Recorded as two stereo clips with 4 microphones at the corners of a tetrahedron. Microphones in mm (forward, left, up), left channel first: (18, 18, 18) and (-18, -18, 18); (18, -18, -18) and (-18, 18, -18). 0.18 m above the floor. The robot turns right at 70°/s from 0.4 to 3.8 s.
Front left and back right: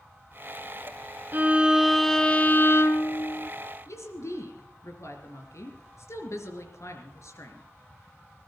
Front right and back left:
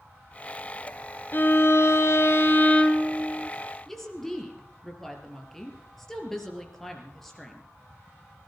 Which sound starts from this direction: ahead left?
A woman speaking, at 3.9 s.